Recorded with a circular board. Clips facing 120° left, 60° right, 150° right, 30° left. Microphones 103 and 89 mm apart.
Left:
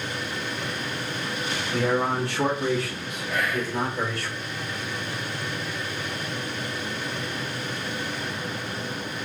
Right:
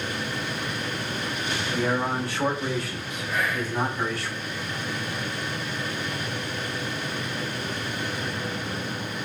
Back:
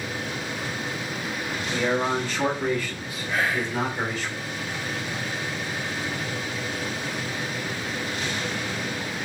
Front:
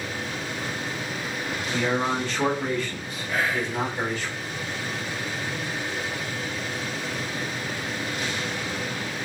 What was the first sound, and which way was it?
A man speaking, 120° left.